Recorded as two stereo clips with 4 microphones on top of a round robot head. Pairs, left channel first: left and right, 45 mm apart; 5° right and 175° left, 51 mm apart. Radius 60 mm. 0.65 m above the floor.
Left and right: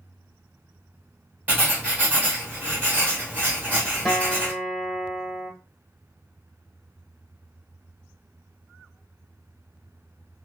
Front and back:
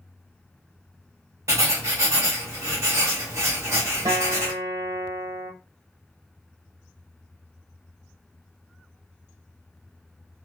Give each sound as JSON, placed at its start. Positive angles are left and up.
{"t": 1.5, "sound": "writing", "azimuth_deg": -145, "distance_m": 1.8}
{"t": 4.0, "sound": "a guitar", "azimuth_deg": -175, "distance_m": 0.8}